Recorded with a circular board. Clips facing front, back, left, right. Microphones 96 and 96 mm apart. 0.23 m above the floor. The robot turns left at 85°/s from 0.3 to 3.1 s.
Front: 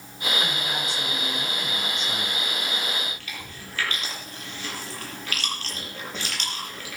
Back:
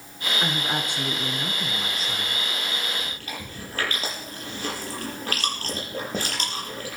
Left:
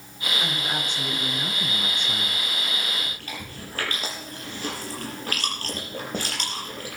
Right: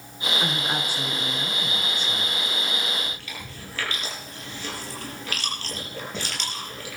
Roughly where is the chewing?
Behind left.